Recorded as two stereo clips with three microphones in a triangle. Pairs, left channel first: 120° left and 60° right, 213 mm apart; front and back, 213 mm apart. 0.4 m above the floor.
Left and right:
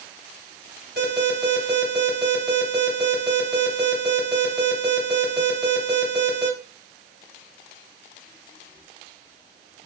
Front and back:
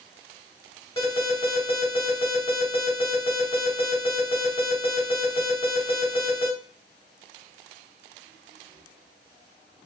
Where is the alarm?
70° right, 3 m.